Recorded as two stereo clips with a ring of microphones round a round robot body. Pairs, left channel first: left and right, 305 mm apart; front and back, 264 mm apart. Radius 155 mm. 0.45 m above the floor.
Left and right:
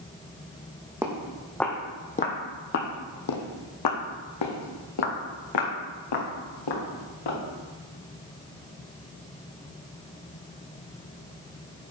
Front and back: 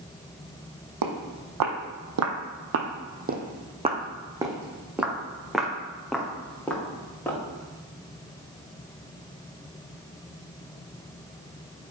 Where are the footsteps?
170° right, 1.4 m; by 7.4 s 80° left, 3.5 m.